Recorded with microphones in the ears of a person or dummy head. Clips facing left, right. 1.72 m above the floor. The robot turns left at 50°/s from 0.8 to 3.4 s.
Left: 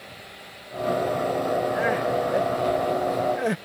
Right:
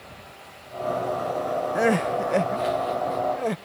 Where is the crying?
105° right; by 3.6 s 170° left.